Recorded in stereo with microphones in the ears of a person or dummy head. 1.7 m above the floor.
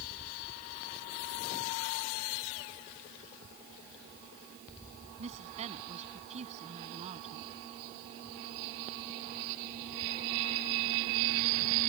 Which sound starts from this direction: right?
A woman speaking, at 5.2 s.